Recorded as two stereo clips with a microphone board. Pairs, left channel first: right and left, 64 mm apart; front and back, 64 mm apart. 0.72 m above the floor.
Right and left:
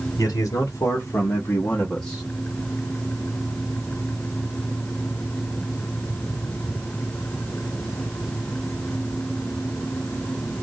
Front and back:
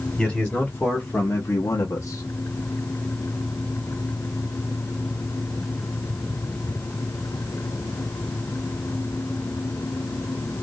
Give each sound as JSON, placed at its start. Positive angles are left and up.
{"t": 0.2, "sound": "a man speaking", "azimuth_deg": -80, "distance_m": 1.4}